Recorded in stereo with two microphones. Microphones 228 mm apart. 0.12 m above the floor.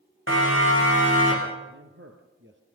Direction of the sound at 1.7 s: 55° right (ahead or behind).